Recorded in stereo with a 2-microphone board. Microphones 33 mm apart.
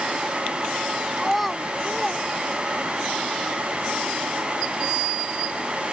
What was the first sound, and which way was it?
A child speaking, centre (ahead or behind).